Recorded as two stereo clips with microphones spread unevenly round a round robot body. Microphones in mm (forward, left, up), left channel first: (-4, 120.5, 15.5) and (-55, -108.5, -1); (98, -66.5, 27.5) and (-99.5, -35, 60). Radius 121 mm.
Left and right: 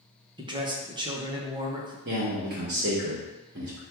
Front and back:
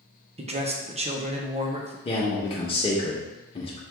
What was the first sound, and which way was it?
A man speaking, 145° right.